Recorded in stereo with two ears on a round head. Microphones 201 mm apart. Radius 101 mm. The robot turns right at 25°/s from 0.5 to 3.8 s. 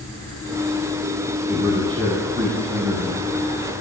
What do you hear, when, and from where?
1.5 s a man speaking: 165° right, 9.5 m; by 3.3 s 120° right, 9.5 m